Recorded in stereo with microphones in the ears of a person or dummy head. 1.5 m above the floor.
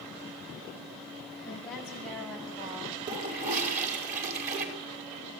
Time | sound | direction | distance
1.4 | a woman speaking | 5° left (ahead or behind) | 10 m
3.1 | a toilet flushing | 45° right (ahead or behind) | 4.5 m